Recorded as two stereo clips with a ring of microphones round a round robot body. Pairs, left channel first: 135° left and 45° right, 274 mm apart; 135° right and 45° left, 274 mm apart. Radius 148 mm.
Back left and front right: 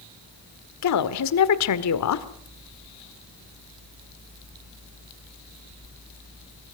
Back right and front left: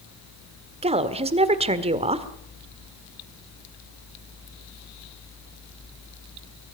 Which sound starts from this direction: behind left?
A woman speaking, at 0.8 s.